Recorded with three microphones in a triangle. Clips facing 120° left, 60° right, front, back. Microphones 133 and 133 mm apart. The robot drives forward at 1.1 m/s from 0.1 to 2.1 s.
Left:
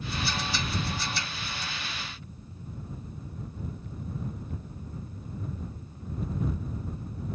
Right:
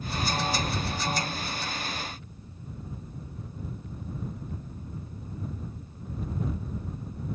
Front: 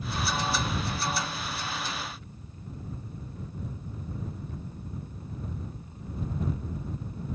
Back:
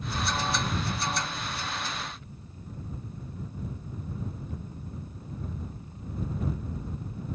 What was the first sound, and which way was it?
Only background noise.